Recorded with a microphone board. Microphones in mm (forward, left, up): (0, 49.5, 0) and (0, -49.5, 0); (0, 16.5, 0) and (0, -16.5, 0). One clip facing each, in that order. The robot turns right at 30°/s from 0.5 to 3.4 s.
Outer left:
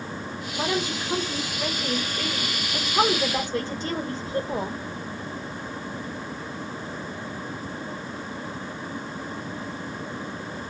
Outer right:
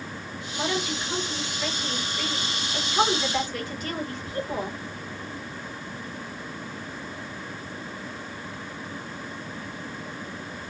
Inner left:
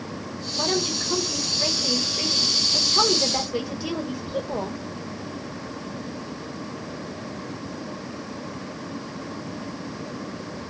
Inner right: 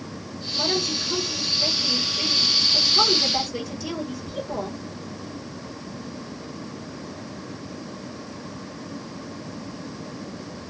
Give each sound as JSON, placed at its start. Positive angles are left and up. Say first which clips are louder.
{"t": 0.6, "sound": "a woman speaking", "louder": "outer left 1 dB, even", "azimuth_deg": 50, "distance_m": 1.5}